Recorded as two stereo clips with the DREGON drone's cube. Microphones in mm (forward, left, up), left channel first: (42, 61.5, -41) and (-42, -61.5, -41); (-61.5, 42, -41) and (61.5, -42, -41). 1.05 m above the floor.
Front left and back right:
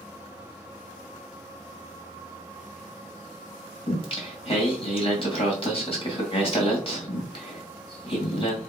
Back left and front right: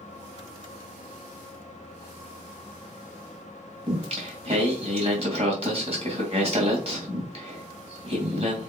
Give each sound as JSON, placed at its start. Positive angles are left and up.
{"t": 3.9, "sound": "singing", "azimuth_deg": 5, "distance_m": 2.5}